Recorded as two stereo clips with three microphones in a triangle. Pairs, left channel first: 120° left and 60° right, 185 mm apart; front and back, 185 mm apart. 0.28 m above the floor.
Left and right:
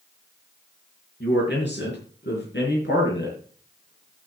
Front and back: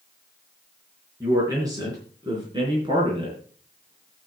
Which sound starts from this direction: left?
A man speaking, at 1.2 s.